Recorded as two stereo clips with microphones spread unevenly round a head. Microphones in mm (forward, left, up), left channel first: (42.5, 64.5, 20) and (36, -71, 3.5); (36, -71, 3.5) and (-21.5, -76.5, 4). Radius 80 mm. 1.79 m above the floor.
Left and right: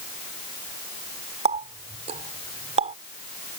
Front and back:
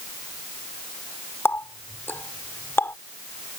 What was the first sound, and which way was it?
A running tap, 50° right.